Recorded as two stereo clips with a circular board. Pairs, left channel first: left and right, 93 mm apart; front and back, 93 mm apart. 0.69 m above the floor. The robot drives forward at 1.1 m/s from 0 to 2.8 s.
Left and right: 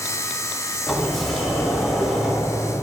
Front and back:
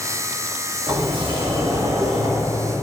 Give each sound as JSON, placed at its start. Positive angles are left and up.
{"t": 0.9, "sound": "a sliding door", "azimuth_deg": 180, "distance_m": 1.3}